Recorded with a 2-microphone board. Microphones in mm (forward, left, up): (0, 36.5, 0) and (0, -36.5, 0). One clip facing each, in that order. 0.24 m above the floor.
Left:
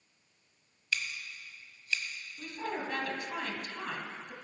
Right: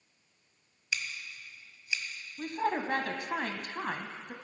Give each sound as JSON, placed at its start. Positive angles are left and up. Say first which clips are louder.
{"t": 0.9, "sound": "scissors", "louder": "left 1 dB", "side_deg": -15, "distance_m": 1.5}
{"t": 2.4, "sound": "a woman speaking", "louder": "right 6 dB", "side_deg": -45, "distance_m": 1.3}